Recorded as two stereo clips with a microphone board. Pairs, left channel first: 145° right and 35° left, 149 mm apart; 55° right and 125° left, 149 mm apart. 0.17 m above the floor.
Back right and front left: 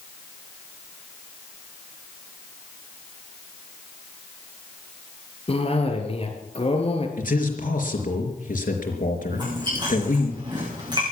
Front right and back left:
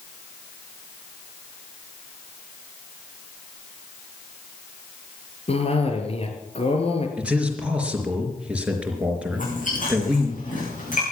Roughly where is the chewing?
Ahead right.